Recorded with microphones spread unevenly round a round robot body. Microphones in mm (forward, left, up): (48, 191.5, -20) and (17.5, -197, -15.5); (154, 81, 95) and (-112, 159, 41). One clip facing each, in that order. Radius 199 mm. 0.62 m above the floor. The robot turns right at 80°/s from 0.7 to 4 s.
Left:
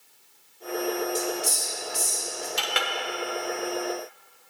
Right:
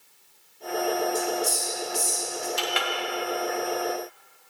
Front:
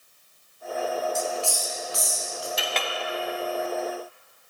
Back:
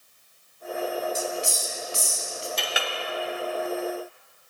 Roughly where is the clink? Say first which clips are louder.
Right 2 dB, front 1 dB; left.